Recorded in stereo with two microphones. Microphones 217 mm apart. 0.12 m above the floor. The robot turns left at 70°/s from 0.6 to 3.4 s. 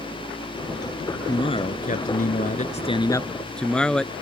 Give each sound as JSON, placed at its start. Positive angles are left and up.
{"t": 1.3, "sound": "a man speaking", "azimuth_deg": 155}